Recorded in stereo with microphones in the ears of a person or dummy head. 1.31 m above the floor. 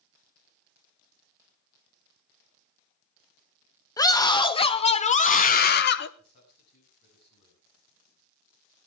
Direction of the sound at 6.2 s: 55° left (ahead or behind).